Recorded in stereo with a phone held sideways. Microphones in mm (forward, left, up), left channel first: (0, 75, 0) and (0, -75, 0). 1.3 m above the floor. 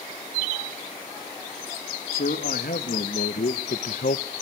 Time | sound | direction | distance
2.1 | a man speaking | 80° left | 2 m